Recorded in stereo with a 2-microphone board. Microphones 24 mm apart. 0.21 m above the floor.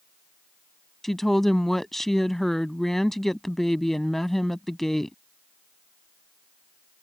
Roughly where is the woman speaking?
Centre.